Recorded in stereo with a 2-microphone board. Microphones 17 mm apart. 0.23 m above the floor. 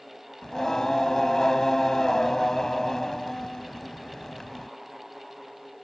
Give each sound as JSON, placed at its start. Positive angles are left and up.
{"t": 0.4, "sound": "singing", "side_deg": 35}